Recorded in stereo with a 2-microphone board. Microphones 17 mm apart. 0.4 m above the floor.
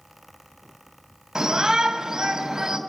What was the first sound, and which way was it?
A shout, 35° right (ahead or behind).